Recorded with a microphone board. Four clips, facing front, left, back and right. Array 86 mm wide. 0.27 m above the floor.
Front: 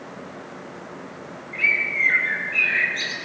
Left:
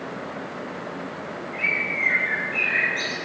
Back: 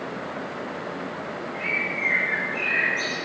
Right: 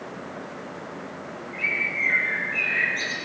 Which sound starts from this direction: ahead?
A bird, at 1.5 s.